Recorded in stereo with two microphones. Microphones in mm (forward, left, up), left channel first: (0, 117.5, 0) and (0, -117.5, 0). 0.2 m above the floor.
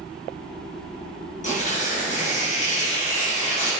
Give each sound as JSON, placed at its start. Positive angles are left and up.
{"t": 1.4, "sound": "tearing paper", "side_deg": 30, "distance_m": 3.5}